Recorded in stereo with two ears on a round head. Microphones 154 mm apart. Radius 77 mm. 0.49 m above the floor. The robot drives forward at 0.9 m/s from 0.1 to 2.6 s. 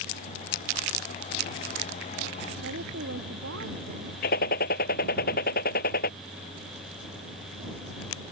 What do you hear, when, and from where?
2.6 s a woman speaking: 85° right
4.2 s a gunshot: 60° left (ahead or behind)